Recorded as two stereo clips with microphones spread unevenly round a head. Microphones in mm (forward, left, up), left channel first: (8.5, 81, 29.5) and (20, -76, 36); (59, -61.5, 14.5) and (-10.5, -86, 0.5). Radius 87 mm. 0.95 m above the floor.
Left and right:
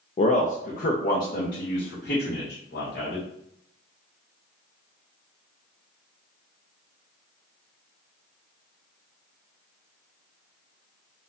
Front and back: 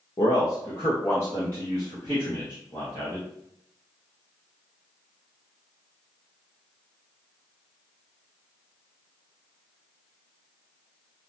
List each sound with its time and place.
0.2 s a man speaking: 65° left, 0.5 m; by 3.3 s 100° left, 1.9 m